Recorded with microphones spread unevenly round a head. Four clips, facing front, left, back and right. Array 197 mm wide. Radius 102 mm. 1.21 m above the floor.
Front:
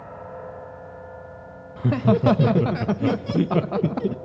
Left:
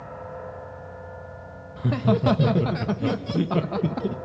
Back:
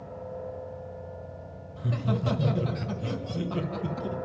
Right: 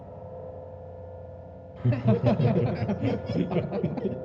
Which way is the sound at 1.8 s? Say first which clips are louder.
Left 3 dB, front 11 dB; 15° left.